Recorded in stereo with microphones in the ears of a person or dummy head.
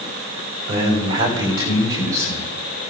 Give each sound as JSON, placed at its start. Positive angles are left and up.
{"t": 0.7, "sound": "a man speaking", "side_deg": -35, "distance_m": 5.0}